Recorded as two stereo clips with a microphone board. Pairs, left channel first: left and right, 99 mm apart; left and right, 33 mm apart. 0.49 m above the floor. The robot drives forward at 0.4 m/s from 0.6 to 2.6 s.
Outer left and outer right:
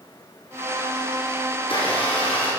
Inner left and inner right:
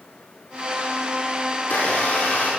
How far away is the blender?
About 4.5 m.